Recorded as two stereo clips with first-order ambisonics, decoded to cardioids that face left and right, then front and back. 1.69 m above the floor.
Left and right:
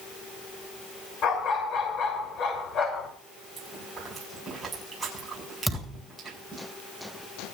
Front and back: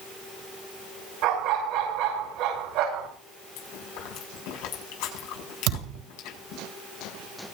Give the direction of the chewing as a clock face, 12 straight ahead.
12 o'clock.